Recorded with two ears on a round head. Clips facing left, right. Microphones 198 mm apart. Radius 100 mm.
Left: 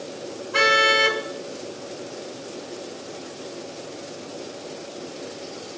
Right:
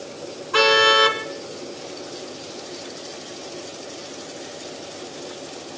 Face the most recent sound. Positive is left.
turn(degrees=-70)  # may be behind; listen again after turning